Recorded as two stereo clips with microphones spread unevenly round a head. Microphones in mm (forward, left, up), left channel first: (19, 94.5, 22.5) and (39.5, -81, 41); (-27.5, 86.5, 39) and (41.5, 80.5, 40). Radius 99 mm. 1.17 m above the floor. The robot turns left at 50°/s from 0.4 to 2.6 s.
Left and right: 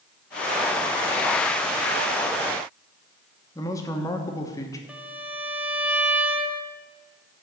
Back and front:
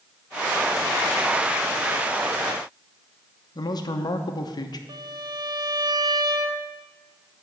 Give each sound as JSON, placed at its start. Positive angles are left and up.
{"t": 3.5, "sound": "a man speaking", "azimuth_deg": 170, "distance_m": 1.0}
{"t": 4.9, "sound": "a violin", "azimuth_deg": -5, "distance_m": 0.6}